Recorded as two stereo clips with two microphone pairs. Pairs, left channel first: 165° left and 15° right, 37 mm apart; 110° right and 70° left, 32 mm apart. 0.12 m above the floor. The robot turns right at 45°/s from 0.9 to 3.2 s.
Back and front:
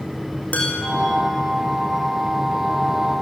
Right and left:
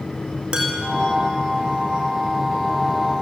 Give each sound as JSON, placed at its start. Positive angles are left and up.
{"t": 0.5, "sound": "dishes clattering", "azimuth_deg": 125, "distance_m": 5.0}